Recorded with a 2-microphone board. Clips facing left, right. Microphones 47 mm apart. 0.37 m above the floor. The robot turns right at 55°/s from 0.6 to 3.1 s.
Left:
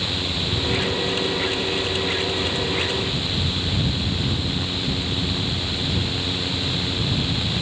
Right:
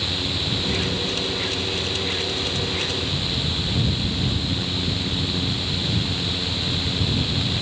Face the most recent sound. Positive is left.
No sound to turn to.